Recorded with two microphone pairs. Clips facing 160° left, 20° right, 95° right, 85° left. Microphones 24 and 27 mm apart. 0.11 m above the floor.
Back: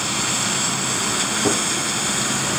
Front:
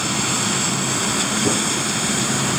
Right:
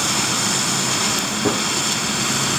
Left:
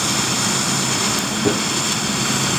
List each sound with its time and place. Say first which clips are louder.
1.4 s a gunshot: back 1 dB, left 1 dB; 160° right, 3 m